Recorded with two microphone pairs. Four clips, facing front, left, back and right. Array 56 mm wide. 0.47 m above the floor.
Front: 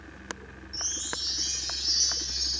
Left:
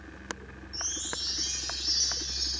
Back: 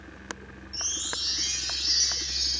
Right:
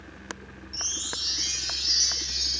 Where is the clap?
No clap in this recording.